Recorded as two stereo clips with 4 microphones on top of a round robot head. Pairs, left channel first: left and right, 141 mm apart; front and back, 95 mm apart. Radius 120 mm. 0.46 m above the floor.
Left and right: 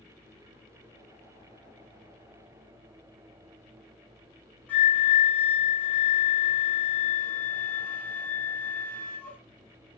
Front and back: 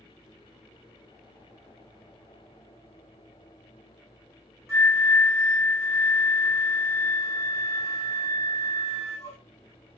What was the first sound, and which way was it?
A flute, 160° left.